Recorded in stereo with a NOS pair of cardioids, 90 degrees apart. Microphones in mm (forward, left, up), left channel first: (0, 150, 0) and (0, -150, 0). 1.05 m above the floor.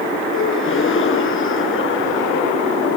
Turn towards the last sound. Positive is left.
turn(degrees=45)